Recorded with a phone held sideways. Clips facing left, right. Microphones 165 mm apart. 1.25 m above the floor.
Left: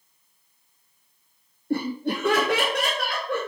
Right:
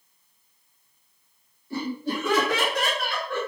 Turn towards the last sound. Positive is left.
turn(degrees=75)  # may be behind; listen again after turning